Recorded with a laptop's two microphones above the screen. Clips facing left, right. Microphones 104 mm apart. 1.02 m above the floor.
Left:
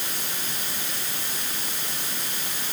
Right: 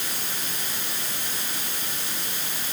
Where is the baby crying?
I don't hear a baby crying.